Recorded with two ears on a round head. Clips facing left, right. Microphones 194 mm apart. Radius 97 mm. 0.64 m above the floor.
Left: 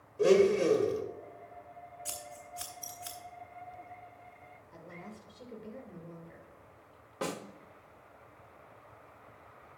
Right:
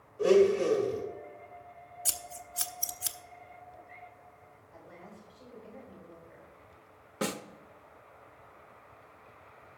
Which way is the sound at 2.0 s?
55° right (ahead or behind).